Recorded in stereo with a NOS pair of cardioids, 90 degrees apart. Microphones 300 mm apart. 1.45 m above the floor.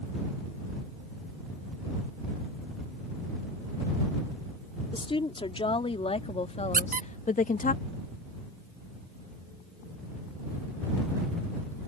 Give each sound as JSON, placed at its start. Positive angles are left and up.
{"t": 4.9, "sound": "a woman speaking", "azimuth_deg": 15}
{"t": 6.7, "sound": "a squeak", "azimuth_deg": -25}